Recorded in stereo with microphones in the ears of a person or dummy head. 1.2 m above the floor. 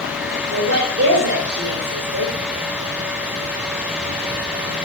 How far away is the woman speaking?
About 3 m.